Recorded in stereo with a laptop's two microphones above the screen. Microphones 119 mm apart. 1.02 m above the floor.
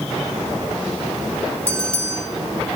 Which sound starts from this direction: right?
A bell, at 1.7 s.